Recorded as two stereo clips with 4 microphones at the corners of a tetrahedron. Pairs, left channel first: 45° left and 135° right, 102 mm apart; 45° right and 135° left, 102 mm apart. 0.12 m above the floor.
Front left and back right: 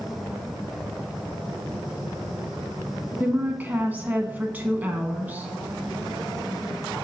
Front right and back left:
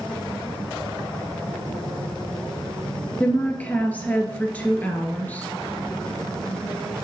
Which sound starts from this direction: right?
A woman speaking, at 3.2 s.